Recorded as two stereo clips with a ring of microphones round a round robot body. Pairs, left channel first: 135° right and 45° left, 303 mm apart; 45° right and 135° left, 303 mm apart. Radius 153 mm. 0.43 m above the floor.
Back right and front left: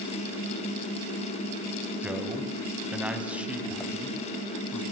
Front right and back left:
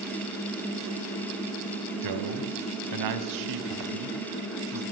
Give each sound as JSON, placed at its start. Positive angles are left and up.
{"t": 2.0, "sound": "a man speaking", "azimuth_deg": 130, "distance_m": 3.0}